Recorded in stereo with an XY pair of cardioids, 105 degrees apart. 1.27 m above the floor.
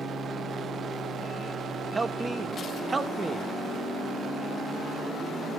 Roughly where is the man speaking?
Ahead right.